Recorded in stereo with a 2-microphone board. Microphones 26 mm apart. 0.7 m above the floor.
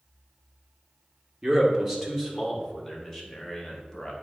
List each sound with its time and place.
1.4 s a man speaking: 20° right (ahead or behind), 1.7 m; by 4.1 s 15° left (ahead or behind), 2.5 m